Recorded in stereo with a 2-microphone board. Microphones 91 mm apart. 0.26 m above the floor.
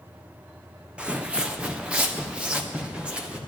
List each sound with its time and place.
1.0 s footsteps: 15° right (ahead or behind), 0.7 m